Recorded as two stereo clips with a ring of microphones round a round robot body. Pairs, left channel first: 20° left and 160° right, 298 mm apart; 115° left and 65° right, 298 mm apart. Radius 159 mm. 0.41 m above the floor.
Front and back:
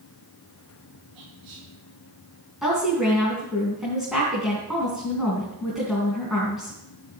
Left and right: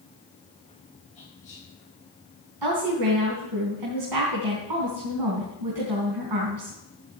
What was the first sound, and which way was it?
Whispering, straight behind.